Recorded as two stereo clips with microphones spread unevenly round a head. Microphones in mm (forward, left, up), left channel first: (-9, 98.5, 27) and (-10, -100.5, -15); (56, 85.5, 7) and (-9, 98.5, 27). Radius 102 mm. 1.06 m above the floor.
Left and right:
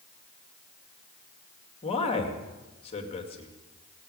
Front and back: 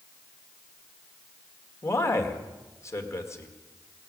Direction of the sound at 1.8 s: 25° left.